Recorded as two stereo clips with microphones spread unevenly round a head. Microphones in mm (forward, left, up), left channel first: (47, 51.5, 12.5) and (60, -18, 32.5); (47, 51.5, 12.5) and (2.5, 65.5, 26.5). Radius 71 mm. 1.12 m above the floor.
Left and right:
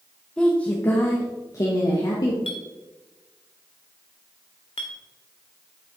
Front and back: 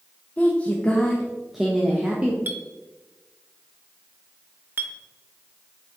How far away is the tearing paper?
I don't hear tearing paper.